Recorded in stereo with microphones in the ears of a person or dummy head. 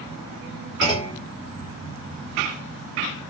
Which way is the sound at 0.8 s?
20° left (ahead or behind).